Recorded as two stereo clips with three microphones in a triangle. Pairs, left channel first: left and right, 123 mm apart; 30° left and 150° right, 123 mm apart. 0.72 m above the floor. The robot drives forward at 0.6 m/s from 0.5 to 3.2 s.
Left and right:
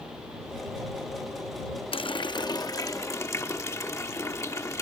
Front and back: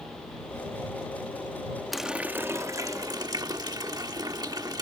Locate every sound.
1.9 s a running tap: 120° left; by 4.8 s 155° left